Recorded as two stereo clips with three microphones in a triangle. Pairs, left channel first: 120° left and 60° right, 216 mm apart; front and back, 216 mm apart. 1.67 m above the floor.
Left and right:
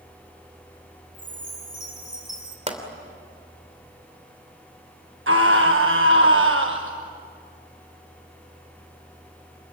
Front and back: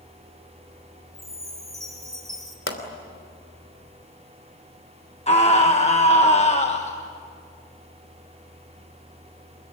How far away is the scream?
About 1.3 m.